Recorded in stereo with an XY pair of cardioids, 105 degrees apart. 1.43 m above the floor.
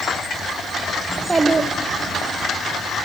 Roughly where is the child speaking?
Ahead.